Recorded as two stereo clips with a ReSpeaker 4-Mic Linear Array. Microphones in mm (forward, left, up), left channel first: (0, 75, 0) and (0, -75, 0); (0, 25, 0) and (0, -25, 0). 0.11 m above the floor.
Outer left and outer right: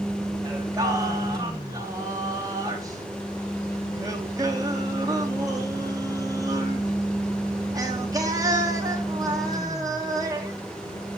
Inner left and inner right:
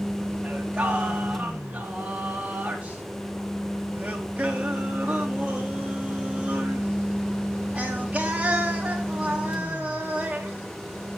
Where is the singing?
25° right (ahead or behind), 3.5 m.